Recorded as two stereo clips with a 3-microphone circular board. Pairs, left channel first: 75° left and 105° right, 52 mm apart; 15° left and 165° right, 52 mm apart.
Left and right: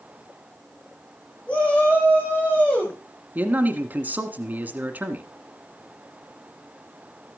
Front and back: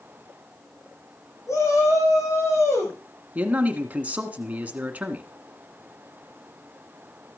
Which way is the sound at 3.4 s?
130° right.